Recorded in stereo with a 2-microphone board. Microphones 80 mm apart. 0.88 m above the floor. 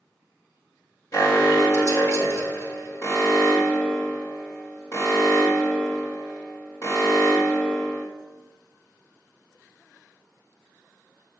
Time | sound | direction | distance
1.1 | an alarm | 40° left (ahead or behind) | 2.5 m